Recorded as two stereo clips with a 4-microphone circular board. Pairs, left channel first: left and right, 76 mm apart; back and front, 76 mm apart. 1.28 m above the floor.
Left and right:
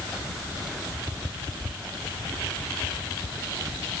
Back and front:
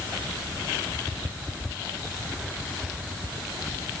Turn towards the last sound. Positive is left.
No sound to turn to.